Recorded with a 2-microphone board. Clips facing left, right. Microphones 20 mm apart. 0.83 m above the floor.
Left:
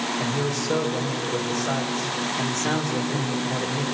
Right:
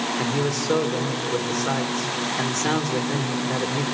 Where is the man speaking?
55° right (ahead or behind), 2.5 m.